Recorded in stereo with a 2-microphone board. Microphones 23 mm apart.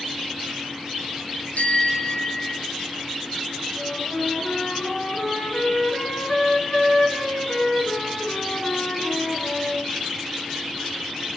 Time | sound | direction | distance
1.6 | a bicycle bell | 85° left | 9 m
3.8 | a flute | 50° left (ahead or behind) | 8.5 m